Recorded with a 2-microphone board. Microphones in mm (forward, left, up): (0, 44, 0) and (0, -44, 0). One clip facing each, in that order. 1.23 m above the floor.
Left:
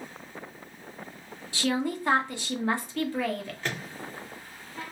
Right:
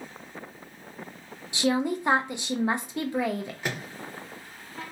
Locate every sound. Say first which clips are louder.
1.5 s a woman speaking: right 3 dB; 20° right (ahead or behind), 0.6 m
3.6 s a microwave: left 1 dB; 15° right (ahead or behind), 0.8 m